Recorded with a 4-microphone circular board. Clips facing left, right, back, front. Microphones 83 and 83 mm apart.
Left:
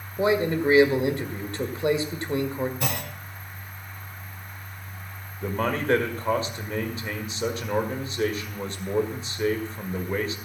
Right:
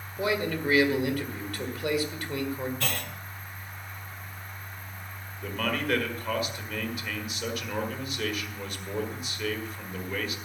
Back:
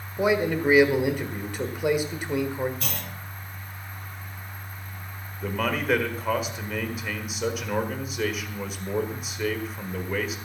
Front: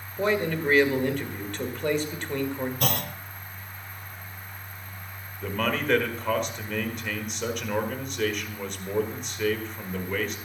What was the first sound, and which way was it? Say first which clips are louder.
A man speaking: left 6 dB, back 2 dB; 110° left.